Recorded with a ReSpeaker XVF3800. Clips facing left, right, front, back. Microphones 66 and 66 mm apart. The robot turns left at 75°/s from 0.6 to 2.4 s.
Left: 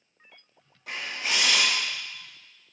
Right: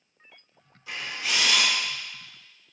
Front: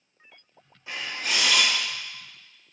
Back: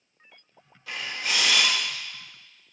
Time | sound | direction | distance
0.9 | a camera shutter | 60° left | 1.0 m